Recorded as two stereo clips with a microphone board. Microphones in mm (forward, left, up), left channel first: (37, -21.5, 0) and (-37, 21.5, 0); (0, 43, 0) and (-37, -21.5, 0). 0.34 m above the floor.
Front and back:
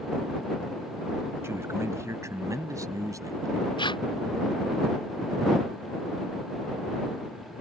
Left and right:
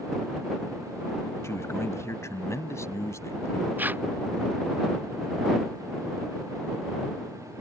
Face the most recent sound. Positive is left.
turn(degrees=-55)